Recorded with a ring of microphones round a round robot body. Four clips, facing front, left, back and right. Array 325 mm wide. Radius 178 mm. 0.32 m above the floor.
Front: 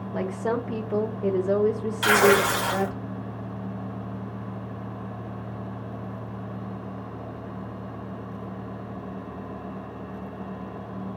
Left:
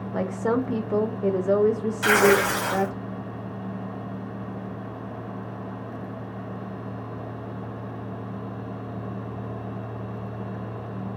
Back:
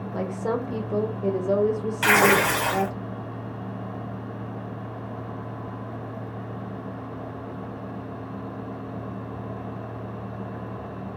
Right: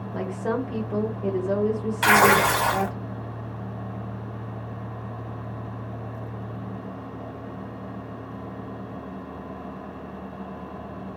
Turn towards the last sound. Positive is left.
turn(degrees=-105)